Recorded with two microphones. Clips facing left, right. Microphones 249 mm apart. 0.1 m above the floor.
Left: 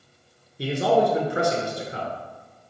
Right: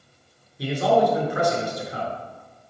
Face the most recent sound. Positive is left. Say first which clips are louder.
# even
turn(degrees=25)  # may be behind; listen again after turning